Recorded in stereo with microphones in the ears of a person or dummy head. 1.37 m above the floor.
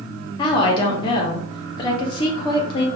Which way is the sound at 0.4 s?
25° left (ahead or behind).